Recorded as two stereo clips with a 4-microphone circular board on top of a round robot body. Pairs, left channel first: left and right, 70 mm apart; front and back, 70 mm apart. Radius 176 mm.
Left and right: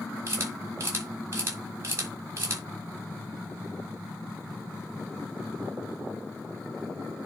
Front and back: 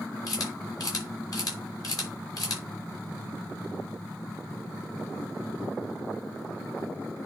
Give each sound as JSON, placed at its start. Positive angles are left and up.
{"t": 0.3, "sound": "a camera shutter", "azimuth_deg": -40, "distance_m": 6.0}